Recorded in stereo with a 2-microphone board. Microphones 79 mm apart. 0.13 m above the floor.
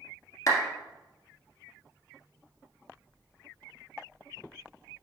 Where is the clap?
45° left (ahead or behind), 1.6 m.